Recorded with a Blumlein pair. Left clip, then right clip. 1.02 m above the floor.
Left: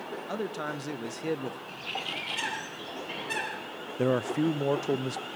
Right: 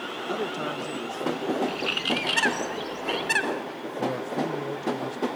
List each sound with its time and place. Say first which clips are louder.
0.3 s a man speaking: right 4 dB; 10° right, 1.2 m; by 1.6 s 25° left, 1.5 m
1.7 s a bird: right 8 dB; 35° right, 2.5 m
4.0 s a man speaking: left 2 dB; 25° left, 0.6 m